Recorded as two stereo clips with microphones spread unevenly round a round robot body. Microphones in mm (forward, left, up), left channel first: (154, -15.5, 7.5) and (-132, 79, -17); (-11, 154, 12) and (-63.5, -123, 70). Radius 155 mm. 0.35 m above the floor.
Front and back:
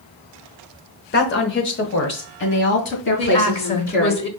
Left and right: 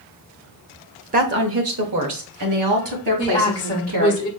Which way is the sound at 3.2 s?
30° left.